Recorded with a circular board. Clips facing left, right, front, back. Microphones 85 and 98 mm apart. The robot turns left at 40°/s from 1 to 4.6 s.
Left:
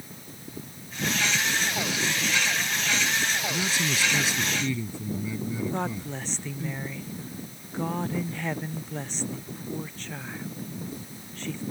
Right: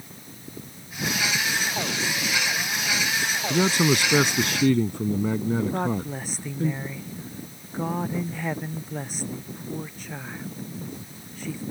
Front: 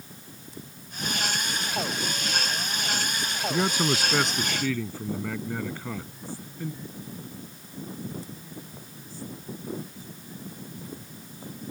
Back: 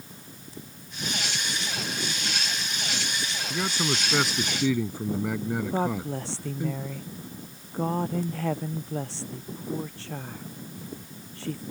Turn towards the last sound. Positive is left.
turn(degrees=-170)